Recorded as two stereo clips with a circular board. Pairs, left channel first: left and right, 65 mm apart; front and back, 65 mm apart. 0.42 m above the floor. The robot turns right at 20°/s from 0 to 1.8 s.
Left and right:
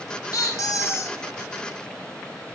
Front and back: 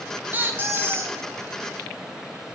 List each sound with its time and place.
0.3 s a squeak: 120° left, 0.5 m; by 1.2 s 135° left, 0.5 m